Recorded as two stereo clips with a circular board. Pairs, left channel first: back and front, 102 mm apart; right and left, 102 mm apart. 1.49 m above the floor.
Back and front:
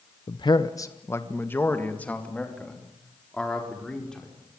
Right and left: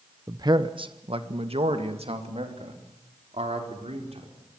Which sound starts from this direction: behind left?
A man speaking, at 0.3 s.